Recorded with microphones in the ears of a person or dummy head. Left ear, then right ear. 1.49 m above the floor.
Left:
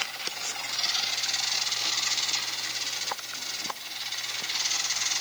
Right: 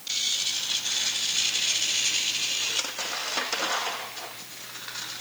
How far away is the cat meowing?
I don't hear a cat meowing.